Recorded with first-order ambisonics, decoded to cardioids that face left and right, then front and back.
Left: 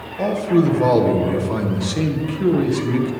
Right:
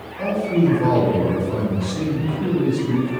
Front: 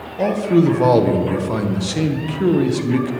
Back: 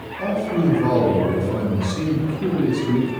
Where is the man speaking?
25° left, 0.9 m.